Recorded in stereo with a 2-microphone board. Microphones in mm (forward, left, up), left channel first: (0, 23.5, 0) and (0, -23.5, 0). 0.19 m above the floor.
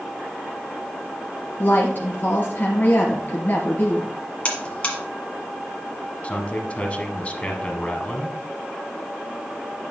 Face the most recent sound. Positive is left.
turn(degrees=30)  # may be behind; listen again after turning